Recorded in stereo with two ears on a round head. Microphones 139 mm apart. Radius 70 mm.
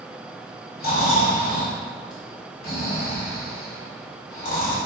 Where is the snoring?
75° left (ahead or behind), 1.8 m.